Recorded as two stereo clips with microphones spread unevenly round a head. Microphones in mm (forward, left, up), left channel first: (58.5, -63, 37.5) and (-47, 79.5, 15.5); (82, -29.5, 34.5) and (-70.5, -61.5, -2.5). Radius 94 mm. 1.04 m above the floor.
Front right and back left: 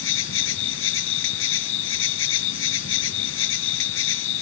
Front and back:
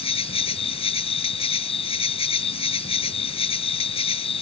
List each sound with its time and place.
0.0 s an insect: 40° right